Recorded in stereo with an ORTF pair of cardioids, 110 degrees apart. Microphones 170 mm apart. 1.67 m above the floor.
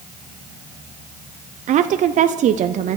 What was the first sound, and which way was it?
A woman speaking, 50° right.